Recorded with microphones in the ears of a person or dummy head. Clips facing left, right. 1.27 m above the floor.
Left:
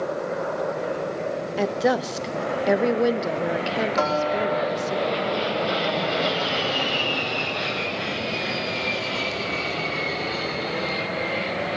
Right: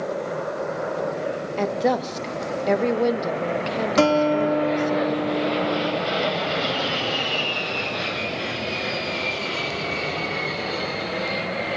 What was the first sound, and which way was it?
A woman speaking, 5° left (ahead or behind).